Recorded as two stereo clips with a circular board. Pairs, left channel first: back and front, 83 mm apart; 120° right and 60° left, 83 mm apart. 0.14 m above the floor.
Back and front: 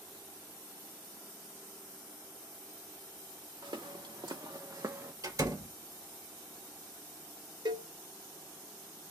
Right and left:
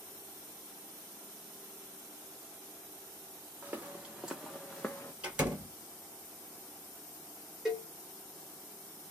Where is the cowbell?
25° right, 1.3 m.